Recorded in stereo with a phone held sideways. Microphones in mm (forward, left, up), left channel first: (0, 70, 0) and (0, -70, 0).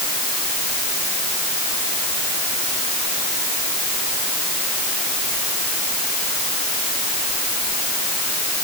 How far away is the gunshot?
I don't hear a gunshot.